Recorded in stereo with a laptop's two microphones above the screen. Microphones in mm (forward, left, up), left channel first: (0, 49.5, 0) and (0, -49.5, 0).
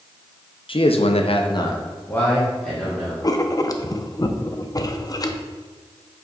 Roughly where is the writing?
Left.